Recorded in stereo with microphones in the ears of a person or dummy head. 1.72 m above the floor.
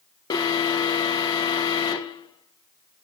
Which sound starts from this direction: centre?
An alarm, at 0.3 s.